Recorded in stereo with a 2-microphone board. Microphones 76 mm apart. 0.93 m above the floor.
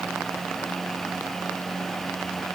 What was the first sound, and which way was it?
Only background noise.